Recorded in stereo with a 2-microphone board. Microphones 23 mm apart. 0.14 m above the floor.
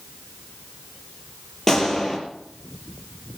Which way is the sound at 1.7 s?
20° left (ahead or behind).